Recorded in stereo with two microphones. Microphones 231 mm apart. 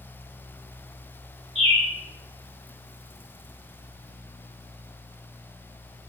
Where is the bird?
65° right (ahead or behind), 1.9 m.